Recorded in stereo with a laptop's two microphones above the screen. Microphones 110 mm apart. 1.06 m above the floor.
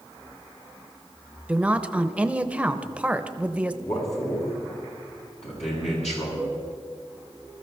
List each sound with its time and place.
1.5 s a woman speaking: 10° right (ahead or behind), 0.8 m
3.8 s a man speaking: 80° left, 7 m
6.4 s a cowbell: 50° left (ahead or behind), 7.5 m